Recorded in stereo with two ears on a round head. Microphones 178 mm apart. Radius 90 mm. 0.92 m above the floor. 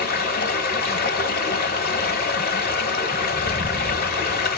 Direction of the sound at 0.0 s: 50° left (ahead or behind).